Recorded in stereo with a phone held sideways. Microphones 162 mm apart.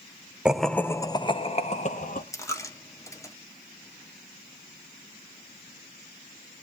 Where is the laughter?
5° right (ahead or behind), 0.7 m; by 2.2 s 50° left (ahead or behind), 1.2 m.